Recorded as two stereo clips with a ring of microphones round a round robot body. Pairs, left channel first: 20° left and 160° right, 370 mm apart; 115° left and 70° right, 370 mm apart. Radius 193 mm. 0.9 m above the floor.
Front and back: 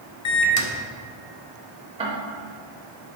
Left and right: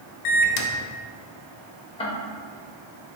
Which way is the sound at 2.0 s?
155° left.